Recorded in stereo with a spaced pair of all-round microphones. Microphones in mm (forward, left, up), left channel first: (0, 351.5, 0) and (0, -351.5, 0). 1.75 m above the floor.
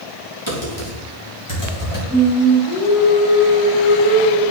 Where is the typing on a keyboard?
40° left (ahead or behind), 3.5 m.